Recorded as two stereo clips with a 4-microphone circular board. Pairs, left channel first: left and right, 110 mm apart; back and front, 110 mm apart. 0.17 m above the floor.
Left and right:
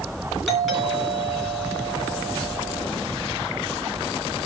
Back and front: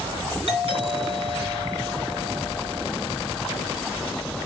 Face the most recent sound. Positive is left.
turn(degrees=-5)